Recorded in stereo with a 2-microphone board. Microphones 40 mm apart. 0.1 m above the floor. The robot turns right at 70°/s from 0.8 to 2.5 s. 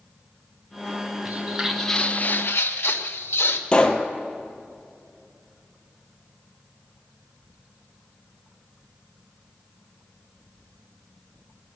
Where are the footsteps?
50° right (ahead or behind), 1.5 m; by 3.6 s 85° left, 1.8 m.